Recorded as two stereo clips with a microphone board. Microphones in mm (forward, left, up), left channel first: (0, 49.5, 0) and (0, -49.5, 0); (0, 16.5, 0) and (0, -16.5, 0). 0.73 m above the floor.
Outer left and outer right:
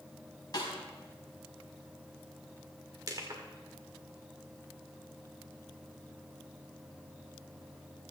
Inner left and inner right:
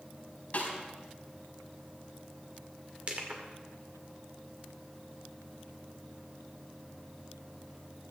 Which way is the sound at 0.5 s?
45° left (ahead or behind).